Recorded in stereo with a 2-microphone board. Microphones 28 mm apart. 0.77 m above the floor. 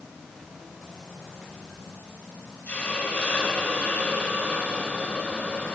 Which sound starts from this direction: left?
A hiss, at 2.7 s.